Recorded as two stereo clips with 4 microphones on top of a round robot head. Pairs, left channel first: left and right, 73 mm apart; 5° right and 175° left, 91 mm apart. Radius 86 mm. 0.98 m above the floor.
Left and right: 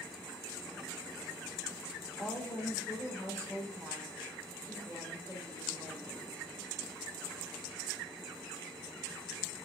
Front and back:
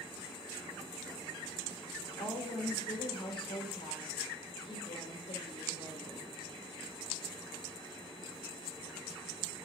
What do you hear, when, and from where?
2.2 s a woman speaking: 20° left, 4.5 m